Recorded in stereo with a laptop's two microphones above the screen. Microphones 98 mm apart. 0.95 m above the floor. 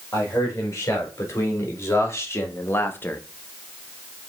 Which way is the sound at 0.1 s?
30° left (ahead or behind).